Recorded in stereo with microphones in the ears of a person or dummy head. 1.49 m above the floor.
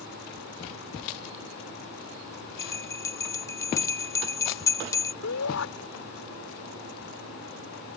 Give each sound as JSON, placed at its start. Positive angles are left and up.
{"t": 2.6, "sound": "a bell", "side_deg": 15}
{"t": 5.2, "sound": "a shout", "side_deg": 80}